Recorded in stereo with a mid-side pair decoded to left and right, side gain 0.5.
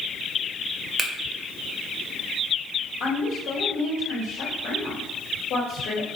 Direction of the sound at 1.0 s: 25° right.